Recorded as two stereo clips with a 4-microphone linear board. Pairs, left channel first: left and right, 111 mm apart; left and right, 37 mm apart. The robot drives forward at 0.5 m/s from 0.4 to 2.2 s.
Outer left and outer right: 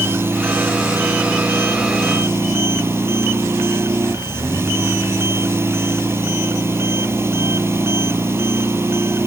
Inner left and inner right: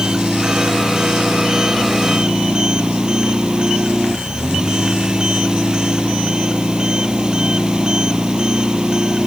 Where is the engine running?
20° right (ahead or behind).